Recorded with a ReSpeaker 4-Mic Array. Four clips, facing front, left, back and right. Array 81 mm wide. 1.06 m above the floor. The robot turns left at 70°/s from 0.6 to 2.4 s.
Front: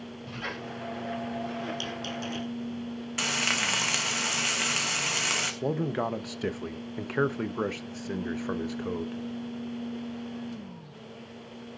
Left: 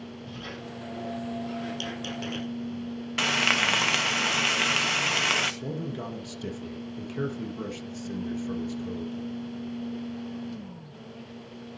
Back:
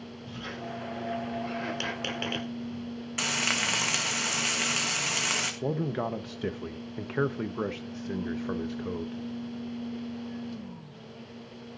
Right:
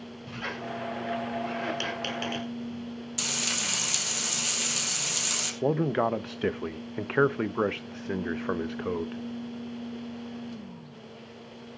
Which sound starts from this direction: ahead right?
A squeak, at 0.3 s.